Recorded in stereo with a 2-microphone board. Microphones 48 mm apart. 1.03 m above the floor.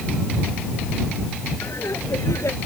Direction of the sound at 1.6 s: 85° left.